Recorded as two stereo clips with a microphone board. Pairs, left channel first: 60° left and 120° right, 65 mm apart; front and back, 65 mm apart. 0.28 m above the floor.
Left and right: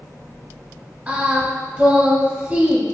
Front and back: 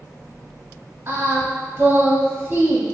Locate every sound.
1.1 s singing: 170° right, 1.0 m